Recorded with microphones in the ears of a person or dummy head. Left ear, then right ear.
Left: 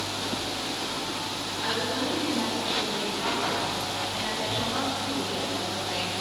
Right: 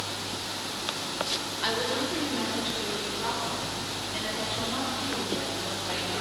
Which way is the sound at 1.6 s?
25° right (ahead or behind).